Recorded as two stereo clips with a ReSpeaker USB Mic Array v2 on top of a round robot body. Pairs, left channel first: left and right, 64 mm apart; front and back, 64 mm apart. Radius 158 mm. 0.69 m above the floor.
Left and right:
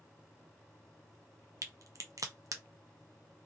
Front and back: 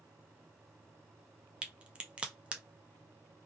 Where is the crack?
110° right, 0.9 m.